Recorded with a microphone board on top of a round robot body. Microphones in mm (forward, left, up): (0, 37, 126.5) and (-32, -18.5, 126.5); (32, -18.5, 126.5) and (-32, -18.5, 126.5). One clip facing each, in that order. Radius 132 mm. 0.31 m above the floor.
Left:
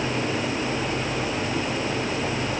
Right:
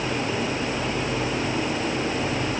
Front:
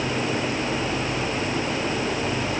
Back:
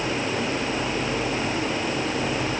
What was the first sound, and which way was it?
Only background noise.